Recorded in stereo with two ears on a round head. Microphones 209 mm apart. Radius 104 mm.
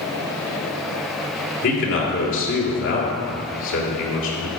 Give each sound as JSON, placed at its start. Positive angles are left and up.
{"t": 1.6, "sound": "a man speaking", "side_deg": 60, "distance_m": 2.5}